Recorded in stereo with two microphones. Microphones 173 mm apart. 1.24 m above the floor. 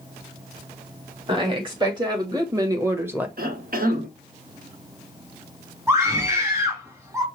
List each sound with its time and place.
1.3 s a woman speaking: 30° right (ahead or behind), 2.5 m; by 3.3 s 10° right (ahead or behind), 0.9 m
3.4 s a cough: 60° right (ahead or behind), 1.1 m
5.9 s a scream: 15° right (ahead or behind), 2 m